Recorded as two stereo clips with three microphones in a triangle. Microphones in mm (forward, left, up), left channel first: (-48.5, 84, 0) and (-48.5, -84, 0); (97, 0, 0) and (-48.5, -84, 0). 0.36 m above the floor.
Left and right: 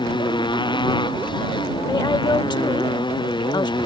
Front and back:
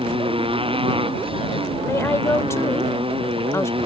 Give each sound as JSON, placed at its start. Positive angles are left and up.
{"t": 0.0, "sound": "a motorcycle", "azimuth_deg": 150}
{"t": 1.9, "sound": "a woman speaking", "azimuth_deg": 80}